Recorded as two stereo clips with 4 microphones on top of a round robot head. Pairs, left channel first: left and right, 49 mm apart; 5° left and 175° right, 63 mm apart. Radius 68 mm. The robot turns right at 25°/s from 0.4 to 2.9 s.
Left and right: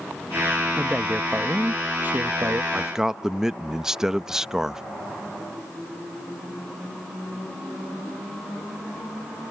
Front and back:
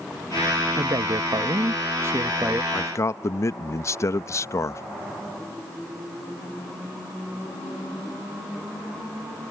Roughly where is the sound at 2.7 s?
Ahead.